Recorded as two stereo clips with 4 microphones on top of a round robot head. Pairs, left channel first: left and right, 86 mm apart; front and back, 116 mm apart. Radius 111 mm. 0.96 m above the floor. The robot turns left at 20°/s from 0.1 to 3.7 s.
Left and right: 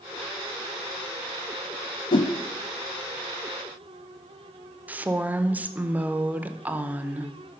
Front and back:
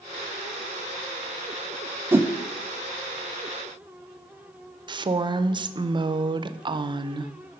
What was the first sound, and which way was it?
A whoosh, 110° left.